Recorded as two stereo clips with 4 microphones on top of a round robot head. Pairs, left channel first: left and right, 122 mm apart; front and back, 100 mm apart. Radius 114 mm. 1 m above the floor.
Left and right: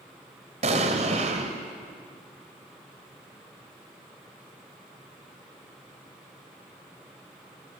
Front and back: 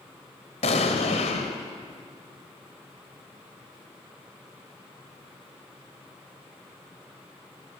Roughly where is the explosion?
Ahead right.